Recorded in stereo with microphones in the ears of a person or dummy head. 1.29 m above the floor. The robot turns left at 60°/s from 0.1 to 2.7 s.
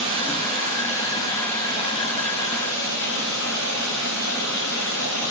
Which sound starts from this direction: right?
Running water, at 0.0 s.